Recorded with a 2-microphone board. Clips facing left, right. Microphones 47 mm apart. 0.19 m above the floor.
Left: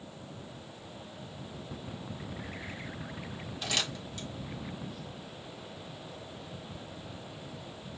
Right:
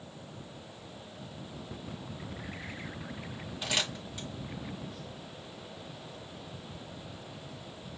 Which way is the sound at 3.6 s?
10° right (ahead or behind).